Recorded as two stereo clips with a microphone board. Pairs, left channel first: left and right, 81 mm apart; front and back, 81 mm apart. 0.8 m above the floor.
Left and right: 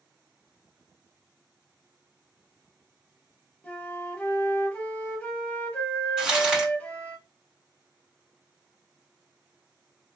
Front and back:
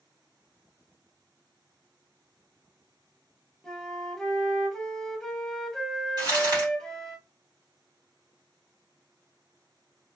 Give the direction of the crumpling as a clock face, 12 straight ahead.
6 o'clock.